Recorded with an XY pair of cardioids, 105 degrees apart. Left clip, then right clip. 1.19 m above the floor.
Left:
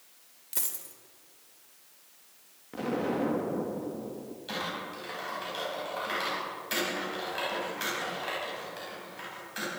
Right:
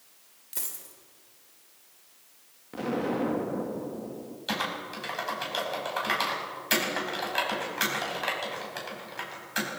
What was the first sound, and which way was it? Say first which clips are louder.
A dropped coin: left 2 dB; 20° left.